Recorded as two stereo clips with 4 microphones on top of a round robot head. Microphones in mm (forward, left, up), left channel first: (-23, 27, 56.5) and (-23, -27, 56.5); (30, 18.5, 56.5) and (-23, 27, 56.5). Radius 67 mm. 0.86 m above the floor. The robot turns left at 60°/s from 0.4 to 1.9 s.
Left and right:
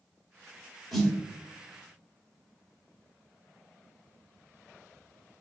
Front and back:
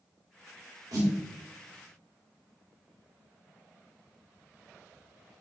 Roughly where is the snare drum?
Behind.